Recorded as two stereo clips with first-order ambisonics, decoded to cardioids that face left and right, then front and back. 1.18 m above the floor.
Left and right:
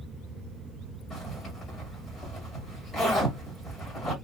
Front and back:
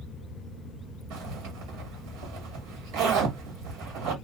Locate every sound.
1.1 s a zipper: 170° left, 1.5 m